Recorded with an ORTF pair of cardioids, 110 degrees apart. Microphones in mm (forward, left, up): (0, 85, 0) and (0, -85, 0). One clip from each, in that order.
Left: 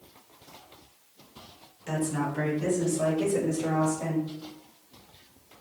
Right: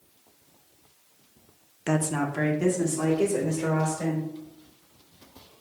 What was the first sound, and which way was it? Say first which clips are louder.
A woman speaking: right 3 dB; 65° right.